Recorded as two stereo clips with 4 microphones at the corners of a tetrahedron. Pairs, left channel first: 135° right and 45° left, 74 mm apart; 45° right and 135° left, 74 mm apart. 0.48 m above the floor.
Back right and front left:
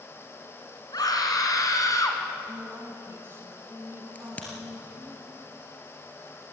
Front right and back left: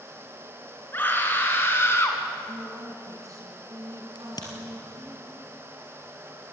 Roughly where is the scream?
Right.